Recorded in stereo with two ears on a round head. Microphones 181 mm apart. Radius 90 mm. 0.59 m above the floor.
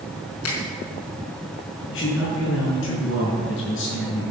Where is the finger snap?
80° left, 4.5 m.